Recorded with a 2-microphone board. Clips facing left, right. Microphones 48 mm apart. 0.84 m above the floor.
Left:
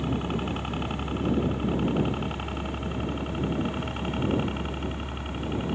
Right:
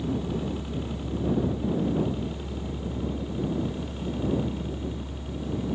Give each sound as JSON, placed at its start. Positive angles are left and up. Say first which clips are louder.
{"t": 0.0, "sound": "a helicopter", "louder": "even", "side_deg": 65}